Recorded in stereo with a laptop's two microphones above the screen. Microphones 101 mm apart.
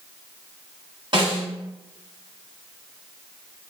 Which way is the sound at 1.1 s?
45° right (ahead or behind).